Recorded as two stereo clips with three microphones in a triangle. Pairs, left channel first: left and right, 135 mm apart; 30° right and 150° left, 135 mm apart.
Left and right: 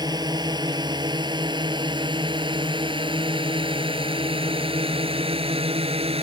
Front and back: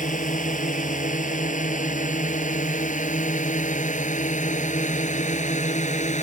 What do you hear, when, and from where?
0.0 s a drone: 30° right; by 6.2 s 50° right